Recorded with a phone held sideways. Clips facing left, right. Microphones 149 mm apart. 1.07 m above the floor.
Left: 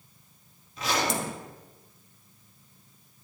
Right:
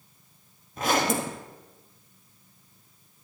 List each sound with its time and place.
0.8 s a zipper: 50° right (ahead or behind), 0.9 m